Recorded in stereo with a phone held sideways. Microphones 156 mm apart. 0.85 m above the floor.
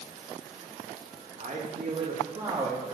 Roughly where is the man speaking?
Right.